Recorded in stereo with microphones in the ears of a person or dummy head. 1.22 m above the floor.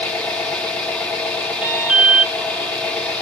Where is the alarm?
10° right (ahead or behind), 1.3 m.